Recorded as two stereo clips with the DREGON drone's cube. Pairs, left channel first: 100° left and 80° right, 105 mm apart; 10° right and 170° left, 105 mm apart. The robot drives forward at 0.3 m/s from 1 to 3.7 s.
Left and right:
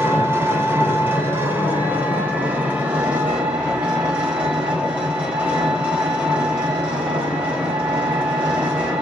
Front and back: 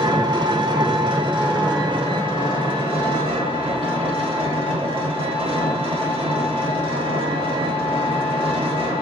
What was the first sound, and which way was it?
An engine running, 145° right.